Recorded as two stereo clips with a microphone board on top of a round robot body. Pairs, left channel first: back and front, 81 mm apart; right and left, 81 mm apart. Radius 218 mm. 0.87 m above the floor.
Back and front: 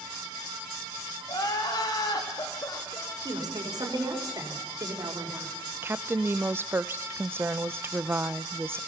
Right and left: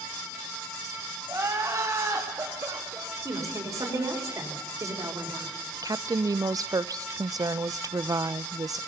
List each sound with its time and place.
1.3 s crying: 145° left, 2.5 m
3.2 s a woman speaking: 40° left, 4.5 m
5.8 s a woman speaking: 55° left, 0.7 m